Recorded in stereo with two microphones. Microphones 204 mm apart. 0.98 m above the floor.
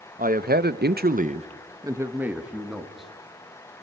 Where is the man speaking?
40° right (ahead or behind), 1.0 m; by 3.1 s centre (ahead or behind), 2 m.